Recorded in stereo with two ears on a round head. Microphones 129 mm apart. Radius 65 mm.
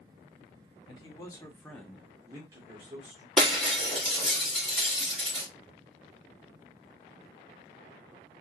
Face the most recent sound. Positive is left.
turn(degrees=0)  # may be behind; listen again after turning